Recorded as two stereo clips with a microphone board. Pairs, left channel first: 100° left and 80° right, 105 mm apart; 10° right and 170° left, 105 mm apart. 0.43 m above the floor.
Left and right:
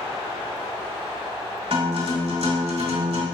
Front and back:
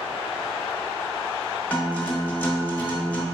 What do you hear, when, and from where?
1.7 s a guitar: 85° right, 1.3 m